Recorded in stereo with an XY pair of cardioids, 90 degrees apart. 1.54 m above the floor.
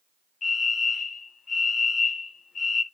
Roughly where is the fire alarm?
Ahead left.